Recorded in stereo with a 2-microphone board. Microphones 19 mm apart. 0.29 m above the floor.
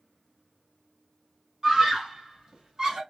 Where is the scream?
40° right (ahead or behind), 1.6 m.